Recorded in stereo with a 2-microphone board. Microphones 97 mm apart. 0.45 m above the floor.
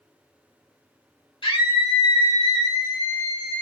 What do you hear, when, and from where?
1.4 s a scream: 60° left (ahead or behind), 1.5 m; by 3.6 s 20° left (ahead or behind), 0.9 m